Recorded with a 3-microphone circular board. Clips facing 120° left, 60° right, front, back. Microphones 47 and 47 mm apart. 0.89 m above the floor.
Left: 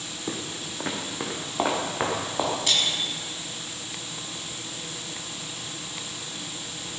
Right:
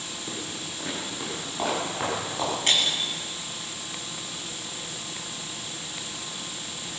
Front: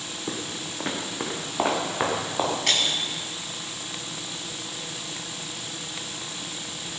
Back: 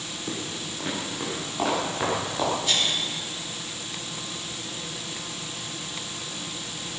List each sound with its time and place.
0.3 s footsteps: 70° left, 2.5 m; by 2.5 s 60° left, 6 m
2.7 s breaking glass: 10° right, 4 m